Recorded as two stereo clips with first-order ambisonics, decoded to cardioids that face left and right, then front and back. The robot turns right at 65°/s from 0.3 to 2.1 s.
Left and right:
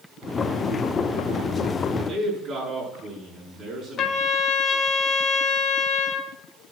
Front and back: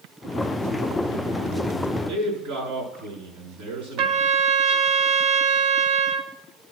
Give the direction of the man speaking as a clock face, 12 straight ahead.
6 o'clock.